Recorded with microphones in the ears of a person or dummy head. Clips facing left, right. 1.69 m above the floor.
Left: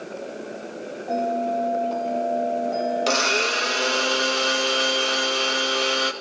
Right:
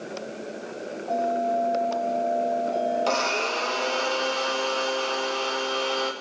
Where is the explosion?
I don't hear an explosion.